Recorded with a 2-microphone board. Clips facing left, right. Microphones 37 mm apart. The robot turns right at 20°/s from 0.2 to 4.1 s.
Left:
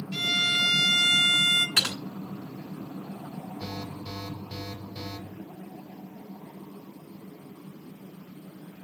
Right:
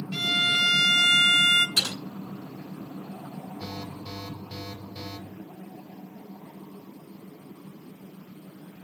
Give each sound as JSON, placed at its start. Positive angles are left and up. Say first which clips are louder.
{"t": 0.1, "sound": "a violin", "louder": "right 1 dB", "side_deg": -10, "distance_m": 0.7}
{"t": 1.8, "sound": "typing on a keyboard", "louder": "left 1 dB", "side_deg": 65, "distance_m": 3.0}
{"t": 3.6, "sound": "an alarm", "louder": "left 1 dB", "side_deg": 15, "distance_m": 3.0}